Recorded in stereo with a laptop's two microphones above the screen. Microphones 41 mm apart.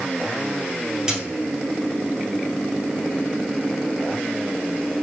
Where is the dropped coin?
10° right (ahead or behind), 2.5 m.